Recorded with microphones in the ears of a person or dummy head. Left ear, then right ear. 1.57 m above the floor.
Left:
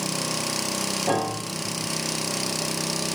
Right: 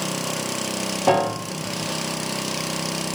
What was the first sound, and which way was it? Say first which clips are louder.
A piano: right 9 dB; 50° right (ahead or behind).